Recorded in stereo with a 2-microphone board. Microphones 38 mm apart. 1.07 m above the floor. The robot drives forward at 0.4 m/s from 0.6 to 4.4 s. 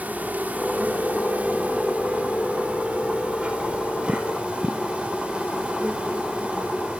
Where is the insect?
45° right (ahead or behind), 2.5 m; by 7.0 s 25° right (ahead or behind), 3.5 m.